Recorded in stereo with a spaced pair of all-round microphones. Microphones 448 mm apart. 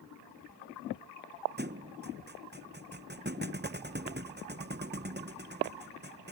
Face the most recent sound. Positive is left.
turn(degrees=-20)  # may be behind; listen again after turning